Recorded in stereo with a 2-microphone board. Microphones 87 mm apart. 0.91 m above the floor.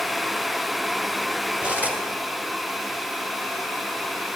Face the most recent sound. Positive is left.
turn(degrees=-15)  # may be behind; listen again after turning